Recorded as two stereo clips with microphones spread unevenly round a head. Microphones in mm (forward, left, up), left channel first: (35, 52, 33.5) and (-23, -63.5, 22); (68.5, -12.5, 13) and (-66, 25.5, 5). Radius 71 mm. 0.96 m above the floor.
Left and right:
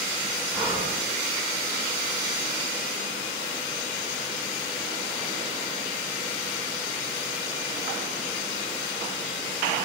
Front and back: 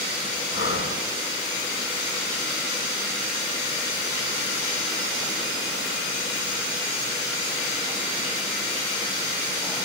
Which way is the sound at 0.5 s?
40° right.